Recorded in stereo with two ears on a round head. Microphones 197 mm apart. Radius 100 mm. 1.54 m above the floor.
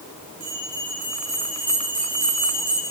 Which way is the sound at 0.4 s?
15° right (ahead or behind).